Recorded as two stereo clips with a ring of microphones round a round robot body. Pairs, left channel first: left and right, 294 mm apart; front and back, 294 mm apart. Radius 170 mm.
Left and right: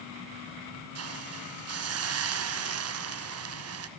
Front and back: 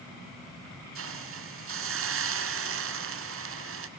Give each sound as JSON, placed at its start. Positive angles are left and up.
{"t": 0.9, "sound": "a hiss", "azimuth_deg": -130, "distance_m": 1.7}